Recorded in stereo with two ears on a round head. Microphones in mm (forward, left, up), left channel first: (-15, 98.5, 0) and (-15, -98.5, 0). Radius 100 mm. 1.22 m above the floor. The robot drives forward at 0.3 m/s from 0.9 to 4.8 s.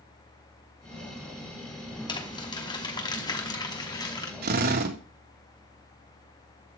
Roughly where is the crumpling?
Left.